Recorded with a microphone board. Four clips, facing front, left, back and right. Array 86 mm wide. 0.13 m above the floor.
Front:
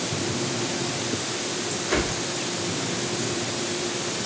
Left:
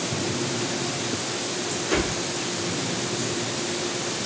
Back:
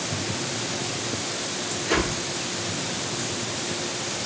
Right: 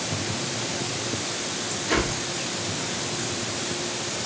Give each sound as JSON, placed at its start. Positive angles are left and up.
{"t": 1.9, "sound": "a whoosh", "azimuth_deg": -150, "distance_m": 1.7}